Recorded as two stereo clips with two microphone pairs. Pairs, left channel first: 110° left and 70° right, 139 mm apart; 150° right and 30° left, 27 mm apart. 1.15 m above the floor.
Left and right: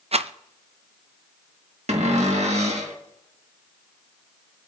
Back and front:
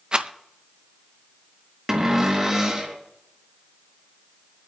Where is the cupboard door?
40° right, 1.7 m.